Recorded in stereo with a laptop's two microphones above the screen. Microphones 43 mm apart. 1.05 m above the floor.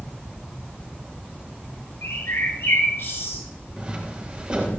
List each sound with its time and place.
2.0 s a bird: 75° left (ahead or behind), 7 m
3.8 s footsteps: 20° right (ahead or behind), 8 m